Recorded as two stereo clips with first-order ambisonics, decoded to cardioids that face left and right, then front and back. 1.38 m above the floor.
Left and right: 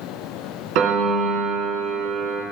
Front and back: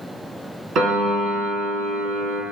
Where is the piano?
125° right, 2.5 m.